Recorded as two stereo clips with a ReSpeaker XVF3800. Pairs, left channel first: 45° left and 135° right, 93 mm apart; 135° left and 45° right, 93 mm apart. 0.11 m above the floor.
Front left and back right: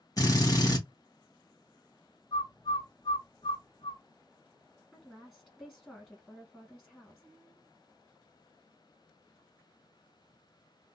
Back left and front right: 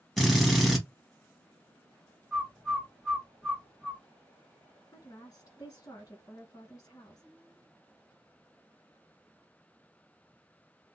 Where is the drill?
55° left, 2 m.